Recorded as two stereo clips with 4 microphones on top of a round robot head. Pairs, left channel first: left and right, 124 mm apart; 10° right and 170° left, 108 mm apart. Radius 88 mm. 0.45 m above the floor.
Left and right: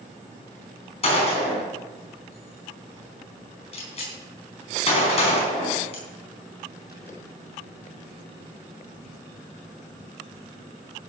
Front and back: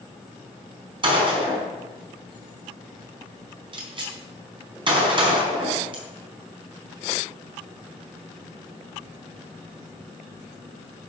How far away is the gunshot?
About 4.5 m.